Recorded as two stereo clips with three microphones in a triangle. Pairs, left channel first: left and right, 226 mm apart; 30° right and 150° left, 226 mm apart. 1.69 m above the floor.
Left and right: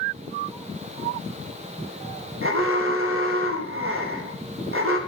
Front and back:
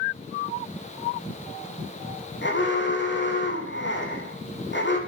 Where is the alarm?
65° right, 3.5 m.